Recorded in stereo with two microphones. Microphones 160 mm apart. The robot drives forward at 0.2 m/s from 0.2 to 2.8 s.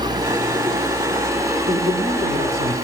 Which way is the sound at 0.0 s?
25° right (ahead or behind).